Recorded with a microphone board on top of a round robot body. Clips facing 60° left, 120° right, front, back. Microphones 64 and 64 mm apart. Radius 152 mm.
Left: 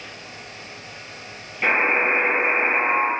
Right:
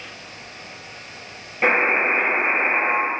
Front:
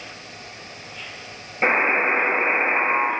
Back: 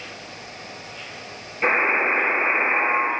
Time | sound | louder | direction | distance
1.6 | a buzzer | right 1 dB, front 1 dB | 55° right | 2 m